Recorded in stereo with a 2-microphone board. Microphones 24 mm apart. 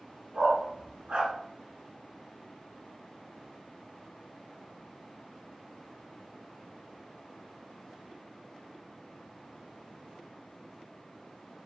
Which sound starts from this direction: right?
A dog barking, at 0.3 s.